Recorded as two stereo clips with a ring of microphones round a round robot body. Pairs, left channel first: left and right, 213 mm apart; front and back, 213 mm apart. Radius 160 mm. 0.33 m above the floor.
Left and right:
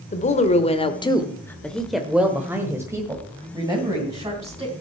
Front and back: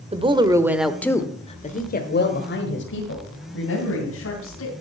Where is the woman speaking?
130° left, 1.5 m; by 4.7 s 20° right, 4 m.